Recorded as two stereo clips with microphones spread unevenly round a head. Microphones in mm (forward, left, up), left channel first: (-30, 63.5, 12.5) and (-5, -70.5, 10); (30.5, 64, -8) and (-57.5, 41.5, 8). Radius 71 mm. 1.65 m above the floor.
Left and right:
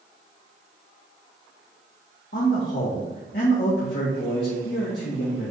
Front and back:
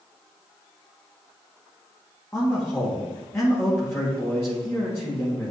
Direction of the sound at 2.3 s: 80° left.